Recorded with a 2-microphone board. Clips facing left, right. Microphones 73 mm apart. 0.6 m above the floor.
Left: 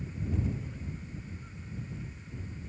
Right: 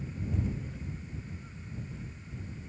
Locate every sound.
Only background noise.